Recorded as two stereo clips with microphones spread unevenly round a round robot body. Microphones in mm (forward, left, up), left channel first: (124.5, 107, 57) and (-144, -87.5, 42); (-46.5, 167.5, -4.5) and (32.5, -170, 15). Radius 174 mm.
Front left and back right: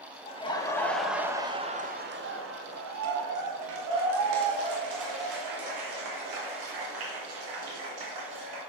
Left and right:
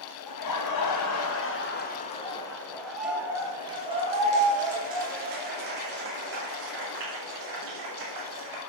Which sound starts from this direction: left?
Laughter, at 0.3 s.